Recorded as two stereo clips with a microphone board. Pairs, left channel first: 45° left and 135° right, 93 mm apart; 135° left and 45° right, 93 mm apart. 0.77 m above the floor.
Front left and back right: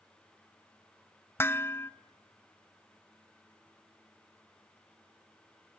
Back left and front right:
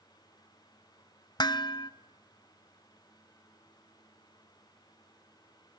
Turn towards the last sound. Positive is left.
turn(degrees=105)